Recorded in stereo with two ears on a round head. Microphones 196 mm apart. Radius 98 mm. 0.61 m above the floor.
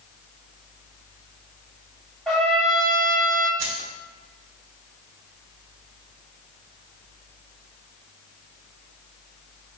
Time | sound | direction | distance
2.3 | a trumpet | centre (ahead or behind) | 0.8 m
3.6 | keys jangling | 55° right (ahead or behind) | 0.9 m